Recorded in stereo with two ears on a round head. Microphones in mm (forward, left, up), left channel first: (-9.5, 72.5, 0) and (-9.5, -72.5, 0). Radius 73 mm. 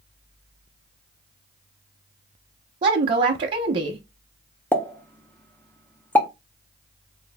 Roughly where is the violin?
I don't hear a violin.